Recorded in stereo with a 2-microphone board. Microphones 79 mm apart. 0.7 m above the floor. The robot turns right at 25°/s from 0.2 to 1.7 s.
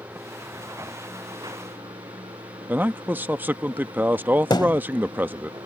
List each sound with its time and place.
0.0 s running water: 145° right; by 5.7 s 110° right
2.7 s a man speaking: 25° right (ahead or behind)
4.5 s a thud: 75° left (ahead or behind)